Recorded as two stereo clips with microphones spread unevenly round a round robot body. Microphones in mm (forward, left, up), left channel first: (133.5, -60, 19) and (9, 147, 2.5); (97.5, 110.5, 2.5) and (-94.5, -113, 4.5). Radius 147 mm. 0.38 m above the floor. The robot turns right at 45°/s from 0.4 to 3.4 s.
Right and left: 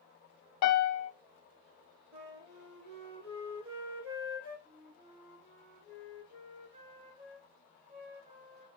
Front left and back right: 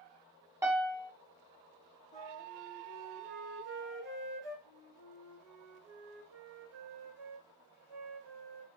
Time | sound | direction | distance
0.6 | a piano | 50° right | 0.6 m
2.1 | a flute | 115° left | 2.0 m
4.7 | a flute | 170° right | 1.2 m